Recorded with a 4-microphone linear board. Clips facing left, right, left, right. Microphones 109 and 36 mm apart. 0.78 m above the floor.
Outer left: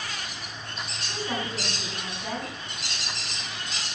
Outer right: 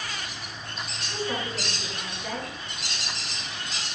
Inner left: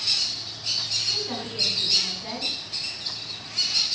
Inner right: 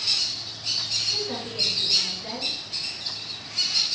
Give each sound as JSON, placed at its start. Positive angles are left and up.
{"t": 1.1, "sound": "a woman speaking", "side_deg": 15, "distance_m": 6.5}